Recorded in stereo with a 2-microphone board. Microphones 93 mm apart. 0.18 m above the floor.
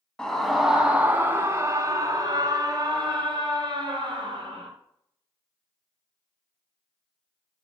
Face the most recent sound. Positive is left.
turn(degrees=-60)  # may be behind; listen again after turning